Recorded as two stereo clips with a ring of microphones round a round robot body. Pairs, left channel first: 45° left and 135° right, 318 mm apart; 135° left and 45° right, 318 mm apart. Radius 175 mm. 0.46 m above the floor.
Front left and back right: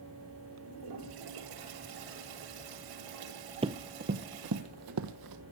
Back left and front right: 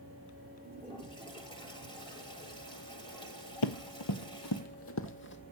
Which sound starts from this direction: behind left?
Running footsteps, at 3.6 s.